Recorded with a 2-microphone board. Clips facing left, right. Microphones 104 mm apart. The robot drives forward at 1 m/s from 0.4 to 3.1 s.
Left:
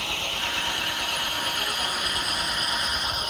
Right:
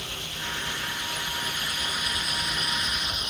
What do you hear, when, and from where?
0.0 s an engine running: 65° left (ahead or behind); by 3.3 s 40° left (ahead or behind)